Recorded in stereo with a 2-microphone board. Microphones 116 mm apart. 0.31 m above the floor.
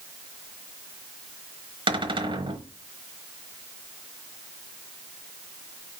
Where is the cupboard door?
45° right (ahead or behind), 1.0 m.